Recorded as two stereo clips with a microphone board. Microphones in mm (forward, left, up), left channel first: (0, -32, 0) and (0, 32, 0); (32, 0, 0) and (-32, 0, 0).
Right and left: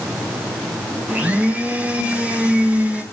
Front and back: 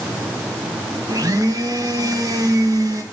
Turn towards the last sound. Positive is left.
turn(degrees=160)